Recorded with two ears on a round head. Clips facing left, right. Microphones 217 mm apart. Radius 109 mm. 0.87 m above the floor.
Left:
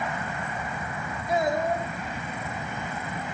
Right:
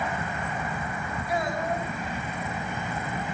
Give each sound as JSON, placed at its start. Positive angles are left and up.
{"t": 1.3, "sound": "a child speaking", "side_deg": 20, "distance_m": 2.5}